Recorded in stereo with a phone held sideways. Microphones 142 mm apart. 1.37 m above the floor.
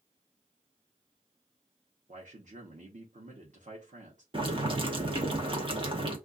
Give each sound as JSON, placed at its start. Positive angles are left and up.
{"t": 2.1, "sound": "a man speaking", "side_deg": -60, "distance_m": 0.9}
{"t": 4.3, "sound": "boiling", "side_deg": -35, "distance_m": 1.0}